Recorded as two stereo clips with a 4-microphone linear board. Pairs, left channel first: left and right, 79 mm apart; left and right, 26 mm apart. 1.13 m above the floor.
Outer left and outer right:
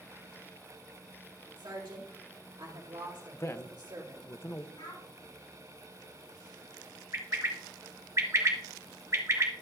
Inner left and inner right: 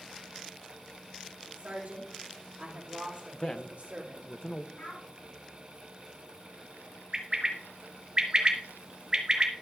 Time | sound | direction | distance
1.6 | a woman speaking | 70° right (ahead or behind) | 2 m
3.3 | a man speaking | 35° left (ahead or behind) | 0.5 m
4.8 | a child speaking | 75° left (ahead or behind) | 5 m
7.1 | a bird | 40° right (ahead or behind) | 1.2 m